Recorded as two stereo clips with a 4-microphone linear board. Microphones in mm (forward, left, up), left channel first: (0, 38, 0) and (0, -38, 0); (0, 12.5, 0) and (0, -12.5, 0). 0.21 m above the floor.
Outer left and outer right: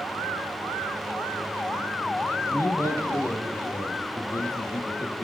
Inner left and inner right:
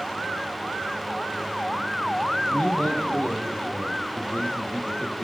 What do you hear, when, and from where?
2.5 s a man speaking: 40° left (ahead or behind), 6 m; by 5.2 s 55° left (ahead or behind), 6.5 m